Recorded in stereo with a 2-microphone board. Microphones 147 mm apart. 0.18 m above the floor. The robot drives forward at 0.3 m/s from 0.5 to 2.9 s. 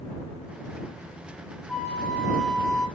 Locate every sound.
1.7 s a flute: 5° left (ahead or behind), 1.0 m